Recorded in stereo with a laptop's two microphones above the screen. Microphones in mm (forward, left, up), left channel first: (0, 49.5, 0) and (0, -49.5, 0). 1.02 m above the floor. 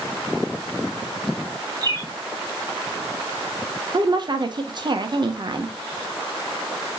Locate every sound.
1.8 s a bird: 40° right (ahead or behind), 0.9 m
3.9 s a woman speaking: 45° right (ahead or behind), 0.6 m